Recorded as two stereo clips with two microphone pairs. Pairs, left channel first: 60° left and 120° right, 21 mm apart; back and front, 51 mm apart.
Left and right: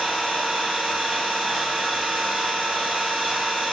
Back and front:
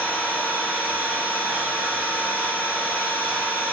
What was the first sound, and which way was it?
An engine running, 70° right.